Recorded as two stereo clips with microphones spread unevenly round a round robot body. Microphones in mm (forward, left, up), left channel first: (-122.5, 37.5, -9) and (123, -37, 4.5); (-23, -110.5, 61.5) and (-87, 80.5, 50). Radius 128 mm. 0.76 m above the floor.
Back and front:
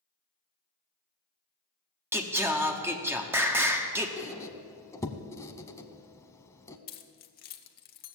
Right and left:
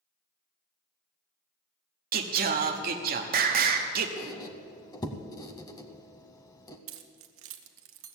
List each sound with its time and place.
2.1 s singing: 65° left, 0.9 m
4.2 s a squeak: 120° right, 0.7 m
6.9 s keys jangling: 110° left, 0.9 m